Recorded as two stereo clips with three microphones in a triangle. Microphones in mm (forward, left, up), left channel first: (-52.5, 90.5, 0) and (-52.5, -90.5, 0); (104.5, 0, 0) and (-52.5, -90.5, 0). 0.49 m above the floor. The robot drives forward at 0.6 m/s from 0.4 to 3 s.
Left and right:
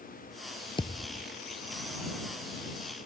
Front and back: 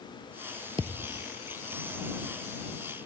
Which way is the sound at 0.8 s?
150° left.